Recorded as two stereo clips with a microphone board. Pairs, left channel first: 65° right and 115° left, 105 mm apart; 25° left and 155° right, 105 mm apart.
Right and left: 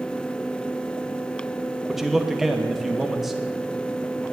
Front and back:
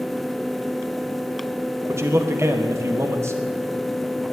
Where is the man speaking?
160° right, 0.9 m.